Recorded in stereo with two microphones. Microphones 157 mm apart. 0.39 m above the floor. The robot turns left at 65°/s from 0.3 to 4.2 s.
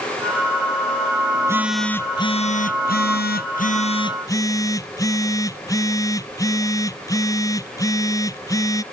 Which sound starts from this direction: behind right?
A phone buzzing, at 1.4 s.